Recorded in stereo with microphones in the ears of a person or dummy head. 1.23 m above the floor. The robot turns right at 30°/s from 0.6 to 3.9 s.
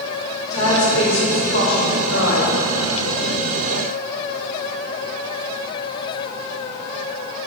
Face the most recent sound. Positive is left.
turn(degrees=120)